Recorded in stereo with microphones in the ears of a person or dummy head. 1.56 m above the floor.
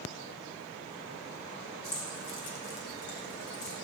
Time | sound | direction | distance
1.8 | keys jangling | 25° left (ahead or behind) | 0.8 m